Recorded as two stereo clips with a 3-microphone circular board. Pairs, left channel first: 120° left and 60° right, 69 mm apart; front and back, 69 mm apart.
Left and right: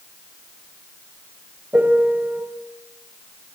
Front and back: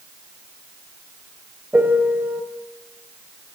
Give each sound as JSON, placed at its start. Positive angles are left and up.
{"t": 1.7, "sound": "a piano", "azimuth_deg": -120, "distance_m": 3.5}